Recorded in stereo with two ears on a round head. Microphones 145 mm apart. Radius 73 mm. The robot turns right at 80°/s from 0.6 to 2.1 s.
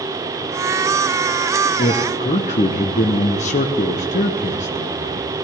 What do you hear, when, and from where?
1.8 s a man speaking: 35° left (ahead or behind), 0.7 m; by 5.4 s 45° left (ahead or behind), 0.7 m